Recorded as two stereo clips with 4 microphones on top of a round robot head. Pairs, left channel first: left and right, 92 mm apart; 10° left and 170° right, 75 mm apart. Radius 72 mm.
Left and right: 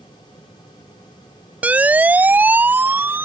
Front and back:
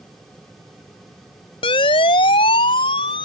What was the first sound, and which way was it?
A siren, 15° right.